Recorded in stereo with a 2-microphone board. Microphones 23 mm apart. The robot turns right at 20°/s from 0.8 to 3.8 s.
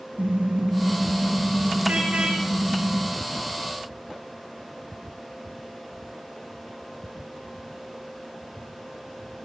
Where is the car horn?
95° right, 5.5 m; by 3.1 s 50° right, 5.5 m.